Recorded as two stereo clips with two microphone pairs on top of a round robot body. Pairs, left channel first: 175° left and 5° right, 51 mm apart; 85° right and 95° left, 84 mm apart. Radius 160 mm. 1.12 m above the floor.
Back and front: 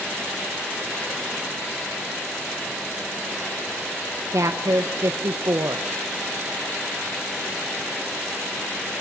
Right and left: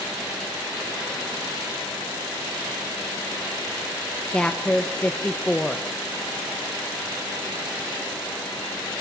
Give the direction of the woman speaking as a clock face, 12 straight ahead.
12 o'clock.